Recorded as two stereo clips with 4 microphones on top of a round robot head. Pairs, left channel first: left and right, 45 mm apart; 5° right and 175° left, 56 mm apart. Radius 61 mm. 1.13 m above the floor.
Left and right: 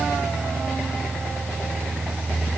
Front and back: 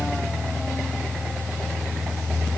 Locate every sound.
Only background noise.